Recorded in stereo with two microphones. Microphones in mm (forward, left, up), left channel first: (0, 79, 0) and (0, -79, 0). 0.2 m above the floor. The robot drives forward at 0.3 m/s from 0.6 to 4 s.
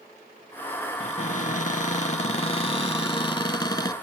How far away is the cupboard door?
About 0.5 m.